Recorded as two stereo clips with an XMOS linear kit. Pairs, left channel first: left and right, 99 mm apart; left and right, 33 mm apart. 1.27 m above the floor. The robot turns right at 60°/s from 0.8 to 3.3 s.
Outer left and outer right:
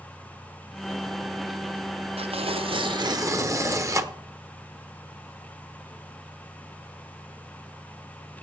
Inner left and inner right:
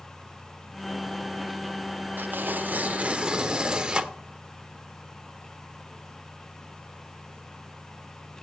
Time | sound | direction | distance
2.2 | tearing paper | 100° right | 0.6 m